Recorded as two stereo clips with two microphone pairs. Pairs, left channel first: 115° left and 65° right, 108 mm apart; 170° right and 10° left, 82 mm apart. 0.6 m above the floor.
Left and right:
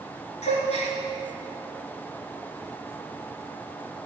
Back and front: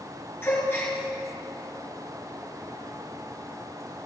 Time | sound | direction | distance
0.4 | a gasp | 130° left | 2.5 m